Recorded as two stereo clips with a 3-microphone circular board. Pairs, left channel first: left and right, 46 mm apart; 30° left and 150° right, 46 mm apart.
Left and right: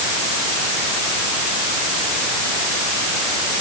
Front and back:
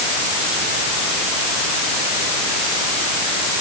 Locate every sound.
Only background noise.